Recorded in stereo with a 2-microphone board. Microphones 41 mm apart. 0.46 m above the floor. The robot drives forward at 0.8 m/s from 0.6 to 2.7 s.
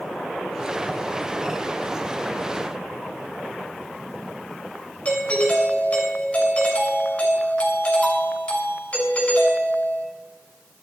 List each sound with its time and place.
5.0 s a doorbell: 35° left (ahead or behind), 6.5 m